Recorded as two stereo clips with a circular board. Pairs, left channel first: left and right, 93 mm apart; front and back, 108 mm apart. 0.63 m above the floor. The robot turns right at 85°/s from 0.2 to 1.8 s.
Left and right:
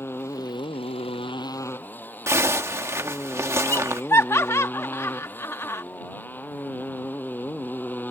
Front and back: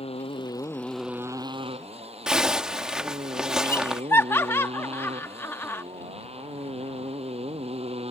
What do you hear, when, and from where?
0.0 s a motorcycle: 25° left; by 8.1 s 160° left
2.3 s a zipper: 105° right
3.6 s laughter: 50° left